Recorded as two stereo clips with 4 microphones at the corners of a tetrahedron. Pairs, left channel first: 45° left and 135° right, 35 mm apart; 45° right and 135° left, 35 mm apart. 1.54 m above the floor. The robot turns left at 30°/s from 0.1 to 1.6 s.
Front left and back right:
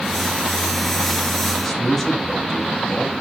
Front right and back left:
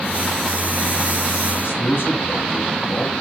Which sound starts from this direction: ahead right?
A man speaking, at 1.6 s.